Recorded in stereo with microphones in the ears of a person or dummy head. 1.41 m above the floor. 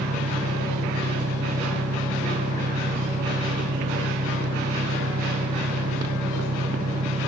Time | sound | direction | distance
0.0 | an engine running | 45° right (ahead or behind) | ?